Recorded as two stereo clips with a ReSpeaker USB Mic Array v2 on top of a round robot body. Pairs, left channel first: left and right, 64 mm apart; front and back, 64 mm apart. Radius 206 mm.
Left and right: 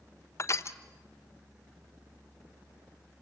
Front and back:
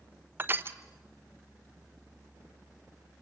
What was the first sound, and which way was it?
Crushing, 125° left.